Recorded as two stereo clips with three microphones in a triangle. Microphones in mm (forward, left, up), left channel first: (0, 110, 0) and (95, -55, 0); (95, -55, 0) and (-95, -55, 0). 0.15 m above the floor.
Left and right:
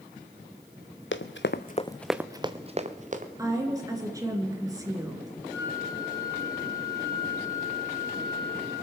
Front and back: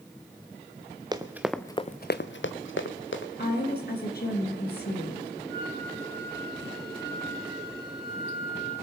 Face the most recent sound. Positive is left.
turn(degrees=15)